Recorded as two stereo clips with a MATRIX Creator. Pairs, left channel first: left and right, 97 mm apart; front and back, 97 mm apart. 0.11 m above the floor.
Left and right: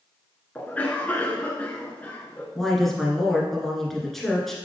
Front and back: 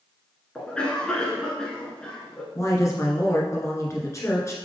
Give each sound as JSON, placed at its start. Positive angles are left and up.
{"t": 0.6, "sound": "a cough", "azimuth_deg": 60, "distance_m": 1.1}
{"t": 2.5, "sound": "a woman speaking", "azimuth_deg": 5, "distance_m": 1.7}